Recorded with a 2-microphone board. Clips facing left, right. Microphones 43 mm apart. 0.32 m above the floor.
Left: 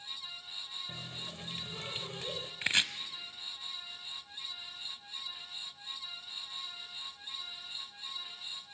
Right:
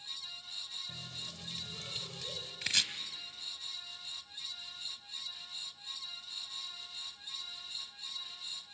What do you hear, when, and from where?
0.9 s a running tap: 30° left (ahead or behind), 0.7 m
2.6 s chopping: 30° left (ahead or behind), 0.8 m